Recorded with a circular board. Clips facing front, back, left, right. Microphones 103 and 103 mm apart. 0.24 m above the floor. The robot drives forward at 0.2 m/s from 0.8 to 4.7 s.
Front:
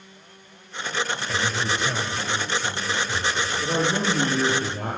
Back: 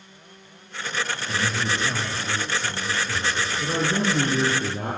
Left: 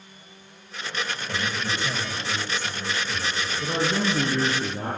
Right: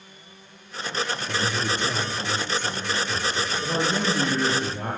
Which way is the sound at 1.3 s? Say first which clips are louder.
Back 2 dB, right 2 dB; 120° right.